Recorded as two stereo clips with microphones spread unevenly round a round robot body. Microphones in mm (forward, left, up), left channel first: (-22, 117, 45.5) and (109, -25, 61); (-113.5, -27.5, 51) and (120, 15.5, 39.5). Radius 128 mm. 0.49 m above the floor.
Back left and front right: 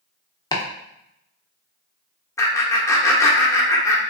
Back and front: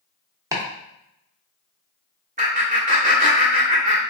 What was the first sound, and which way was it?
Chopping, 80° left.